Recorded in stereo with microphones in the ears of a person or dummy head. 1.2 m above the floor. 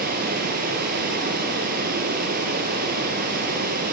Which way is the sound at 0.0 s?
45° right (ahead or behind).